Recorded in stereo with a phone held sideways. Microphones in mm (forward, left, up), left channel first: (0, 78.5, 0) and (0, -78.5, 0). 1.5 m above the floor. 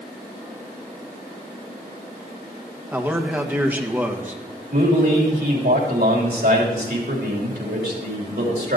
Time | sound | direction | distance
2.9 | a man speaking | 10° right (ahead or behind) | 1.4 m
4.7 | a man speaking | 85° right | 3.5 m